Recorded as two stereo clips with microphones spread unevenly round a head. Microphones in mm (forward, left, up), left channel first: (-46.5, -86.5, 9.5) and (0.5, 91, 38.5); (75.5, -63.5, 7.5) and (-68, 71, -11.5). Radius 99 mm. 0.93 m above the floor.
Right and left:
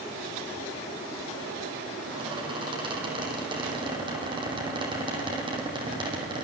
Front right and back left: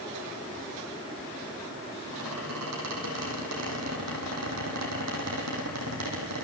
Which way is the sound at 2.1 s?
140° left.